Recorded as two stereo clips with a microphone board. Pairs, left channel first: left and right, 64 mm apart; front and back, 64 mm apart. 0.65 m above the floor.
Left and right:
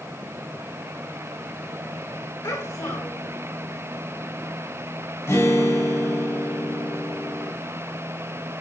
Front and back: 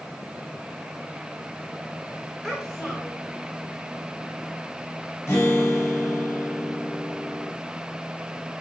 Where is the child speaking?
85° left, 1.6 m.